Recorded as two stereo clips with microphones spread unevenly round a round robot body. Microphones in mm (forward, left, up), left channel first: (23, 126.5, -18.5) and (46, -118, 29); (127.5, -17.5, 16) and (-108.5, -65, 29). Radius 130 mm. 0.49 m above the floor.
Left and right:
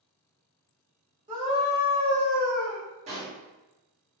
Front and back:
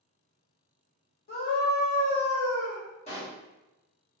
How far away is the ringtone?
I don't hear a ringtone.